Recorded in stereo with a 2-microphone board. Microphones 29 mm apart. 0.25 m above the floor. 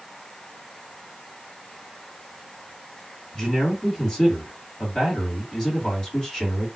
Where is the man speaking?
20° left (ahead or behind), 1.8 m.